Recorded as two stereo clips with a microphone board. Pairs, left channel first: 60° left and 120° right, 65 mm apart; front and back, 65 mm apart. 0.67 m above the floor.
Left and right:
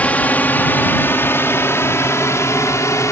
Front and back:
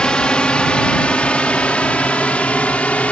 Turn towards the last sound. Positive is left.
turn(degrees=65)